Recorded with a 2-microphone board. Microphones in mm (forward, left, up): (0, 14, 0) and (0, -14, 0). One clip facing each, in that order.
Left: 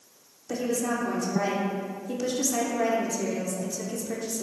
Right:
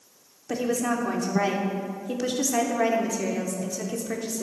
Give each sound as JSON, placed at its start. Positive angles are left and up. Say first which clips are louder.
{"t": 0.5, "sound": "a woman speaking", "louder": "right 2 dB", "side_deg": -35, "distance_m": 1.0}